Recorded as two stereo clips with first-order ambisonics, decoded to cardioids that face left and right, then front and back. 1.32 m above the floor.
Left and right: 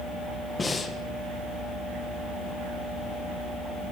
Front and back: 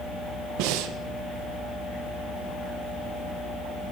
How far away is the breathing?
About 1.0 m.